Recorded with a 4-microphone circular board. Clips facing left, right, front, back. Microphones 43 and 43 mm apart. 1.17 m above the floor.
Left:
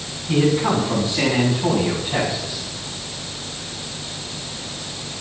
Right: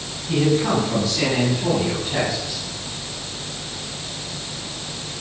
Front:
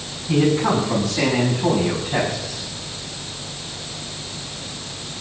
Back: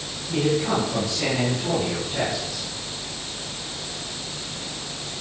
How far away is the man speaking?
About 8.5 m.